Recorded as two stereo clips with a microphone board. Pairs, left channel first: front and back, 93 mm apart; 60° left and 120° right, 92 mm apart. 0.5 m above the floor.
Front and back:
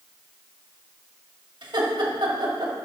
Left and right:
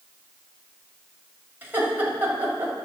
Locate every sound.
1.6 s laughter: 175° left, 2 m